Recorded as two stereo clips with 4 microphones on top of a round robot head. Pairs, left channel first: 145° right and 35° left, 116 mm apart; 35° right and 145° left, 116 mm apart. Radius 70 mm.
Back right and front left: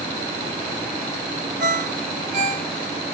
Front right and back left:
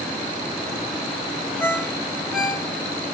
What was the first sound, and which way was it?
A ringtone, 60° left.